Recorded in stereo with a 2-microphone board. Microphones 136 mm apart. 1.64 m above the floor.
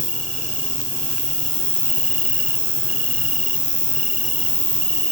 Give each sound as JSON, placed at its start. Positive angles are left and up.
{"t": 0.0, "sound": "an insect", "side_deg": 50}